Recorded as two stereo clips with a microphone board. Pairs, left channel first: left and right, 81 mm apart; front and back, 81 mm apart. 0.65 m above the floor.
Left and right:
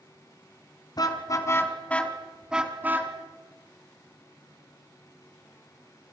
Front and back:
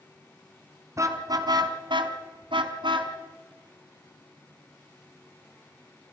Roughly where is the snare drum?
I don't hear a snare drum.